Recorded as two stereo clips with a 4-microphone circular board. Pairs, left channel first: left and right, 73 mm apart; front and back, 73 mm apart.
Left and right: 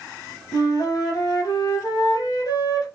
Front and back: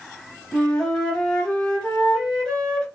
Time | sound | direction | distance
0.5 | a flute | 80° left | 0.9 m